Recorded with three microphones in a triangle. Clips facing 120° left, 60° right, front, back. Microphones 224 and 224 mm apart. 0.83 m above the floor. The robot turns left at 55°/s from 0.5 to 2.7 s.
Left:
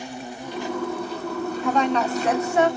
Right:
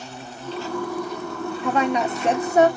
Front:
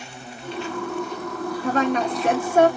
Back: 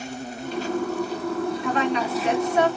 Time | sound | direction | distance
0.0 | an insect | 175° right | 0.8 m
1.6 | a woman speaking | 30° left | 1.0 m